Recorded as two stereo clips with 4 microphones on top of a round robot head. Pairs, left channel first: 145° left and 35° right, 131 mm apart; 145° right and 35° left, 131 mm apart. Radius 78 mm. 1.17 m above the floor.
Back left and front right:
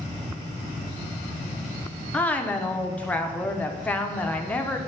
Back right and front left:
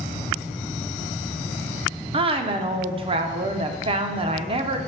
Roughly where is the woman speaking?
Ahead left.